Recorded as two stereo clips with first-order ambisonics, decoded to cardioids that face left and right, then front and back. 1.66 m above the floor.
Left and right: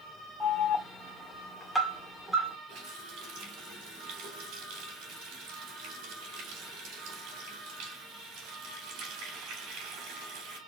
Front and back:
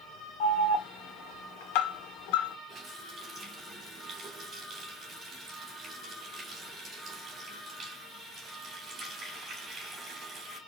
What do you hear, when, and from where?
0.4 s an alarm: straight ahead, 1.8 m
2.7 s a running tap: 120° right, 2.5 m